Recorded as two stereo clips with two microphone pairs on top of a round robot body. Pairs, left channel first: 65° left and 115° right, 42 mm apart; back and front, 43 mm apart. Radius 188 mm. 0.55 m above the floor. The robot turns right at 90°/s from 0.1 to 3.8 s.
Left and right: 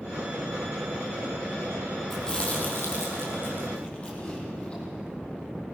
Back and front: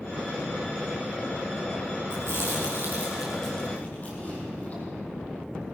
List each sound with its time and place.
2.1 s chewing: 30° right, 5 m; by 4.8 s 125° left, 5 m